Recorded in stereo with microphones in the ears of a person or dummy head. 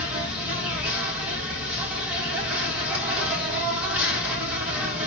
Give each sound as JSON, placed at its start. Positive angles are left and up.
{"t": 0.0, "sound": "an insect", "side_deg": -10, "distance_m": 1.7}